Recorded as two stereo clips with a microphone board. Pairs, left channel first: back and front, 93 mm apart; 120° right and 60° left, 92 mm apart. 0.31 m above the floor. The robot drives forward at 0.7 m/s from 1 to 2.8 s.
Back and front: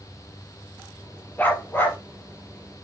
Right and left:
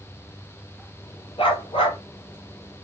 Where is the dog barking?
110° right, 3 m; by 2.0 s 120° right, 3 m.